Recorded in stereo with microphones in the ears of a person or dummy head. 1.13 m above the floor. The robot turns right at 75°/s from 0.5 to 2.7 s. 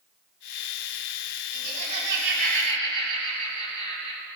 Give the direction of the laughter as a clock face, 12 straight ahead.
4 o'clock.